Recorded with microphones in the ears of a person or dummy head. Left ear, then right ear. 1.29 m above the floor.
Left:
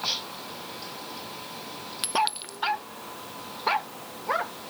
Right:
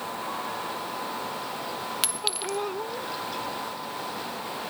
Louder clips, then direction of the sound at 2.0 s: Left 5 dB; 20° right (ahead or behind).